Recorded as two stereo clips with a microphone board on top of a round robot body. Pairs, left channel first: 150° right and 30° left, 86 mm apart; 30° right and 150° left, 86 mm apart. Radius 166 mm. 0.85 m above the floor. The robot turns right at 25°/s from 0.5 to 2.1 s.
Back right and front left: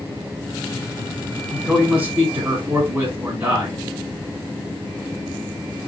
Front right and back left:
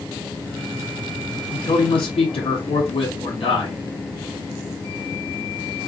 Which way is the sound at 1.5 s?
55° right.